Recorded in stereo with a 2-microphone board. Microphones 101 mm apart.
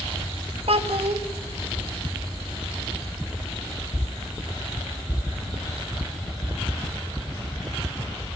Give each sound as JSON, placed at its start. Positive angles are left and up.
{"t": 0.7, "sound": "a child speaking", "side_deg": -65, "distance_m": 1.6}